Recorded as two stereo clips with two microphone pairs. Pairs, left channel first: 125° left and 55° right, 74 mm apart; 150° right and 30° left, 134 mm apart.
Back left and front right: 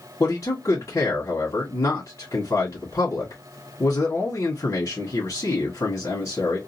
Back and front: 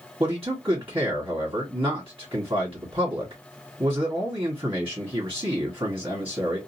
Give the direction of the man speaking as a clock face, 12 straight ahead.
9 o'clock.